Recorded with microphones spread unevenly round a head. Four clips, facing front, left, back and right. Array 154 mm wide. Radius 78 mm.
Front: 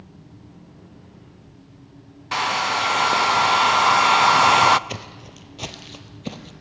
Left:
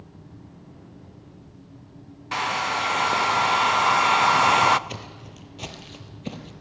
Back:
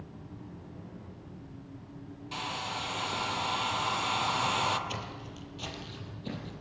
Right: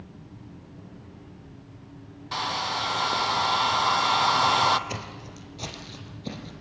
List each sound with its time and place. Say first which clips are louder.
2.3 s a hair dryer: left 4 dB, front 15 dB; 25° left, 0.5 m
4.9 s footsteps: right 2 dB, front 3 dB; 10° left, 2 m; by 6.5 s 35° left, 2.5 m